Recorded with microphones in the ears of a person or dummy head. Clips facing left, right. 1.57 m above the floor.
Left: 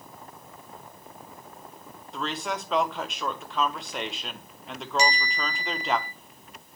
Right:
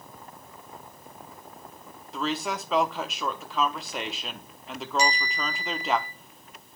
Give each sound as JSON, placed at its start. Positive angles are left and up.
{"t": 2.1, "sound": "a woman speaking", "side_deg": 0, "distance_m": 0.9}
{"t": 5.0, "sound": "a bell", "side_deg": 65, "distance_m": 1.9}